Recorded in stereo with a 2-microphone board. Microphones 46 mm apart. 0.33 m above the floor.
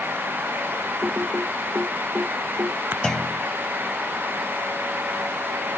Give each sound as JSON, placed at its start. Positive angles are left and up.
{"t": 1.0, "sound": "typing on a keyboard", "side_deg": -50}
{"t": 3.0, "sound": "a clunk", "side_deg": 15}